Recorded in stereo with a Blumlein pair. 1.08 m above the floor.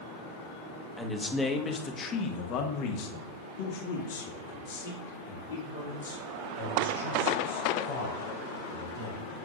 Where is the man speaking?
Straight ahead, 1.4 m; by 9.2 s 80° left, 4.5 m.